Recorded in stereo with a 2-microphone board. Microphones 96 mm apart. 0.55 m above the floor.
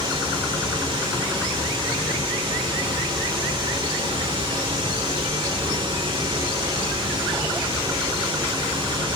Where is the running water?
50° right (ahead or behind), 1.2 m.